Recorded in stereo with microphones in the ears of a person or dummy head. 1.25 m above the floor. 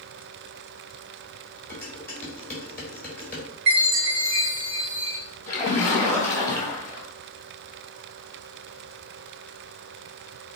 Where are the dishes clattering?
10° left (ahead or behind), 3.5 m.